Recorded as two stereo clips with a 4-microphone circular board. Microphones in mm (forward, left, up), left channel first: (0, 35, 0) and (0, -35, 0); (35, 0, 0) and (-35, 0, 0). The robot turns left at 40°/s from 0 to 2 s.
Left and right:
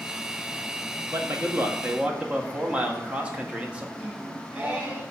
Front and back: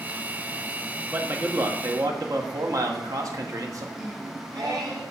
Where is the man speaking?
125° right, 1.0 m; by 3.9 s 160° right, 1.0 m.